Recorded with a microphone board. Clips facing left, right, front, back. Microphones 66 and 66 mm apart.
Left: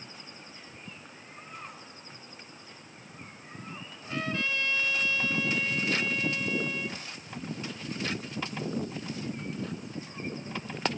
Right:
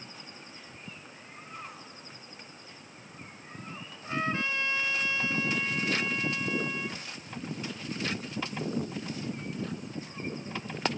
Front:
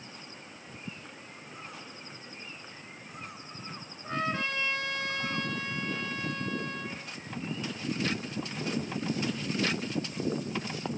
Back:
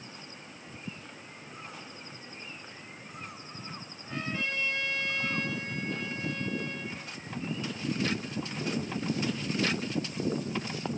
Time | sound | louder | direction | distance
4.0 | a trumpet | right 2 dB, front 3 dB | 25° right | 5 m